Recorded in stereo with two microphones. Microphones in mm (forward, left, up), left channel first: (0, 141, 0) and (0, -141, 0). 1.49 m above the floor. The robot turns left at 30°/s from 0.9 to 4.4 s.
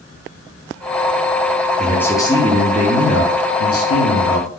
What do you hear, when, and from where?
1.8 s a man speaking: straight behind, 0.7 m; by 4.5 s 100° left, 0.7 m